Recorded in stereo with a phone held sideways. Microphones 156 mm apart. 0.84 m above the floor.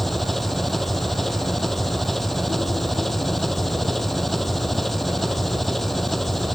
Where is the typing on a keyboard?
I don't hear typing on a keyboard.